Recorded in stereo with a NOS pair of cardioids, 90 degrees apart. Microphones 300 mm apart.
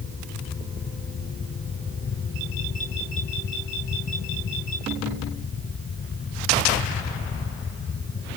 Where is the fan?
45° left.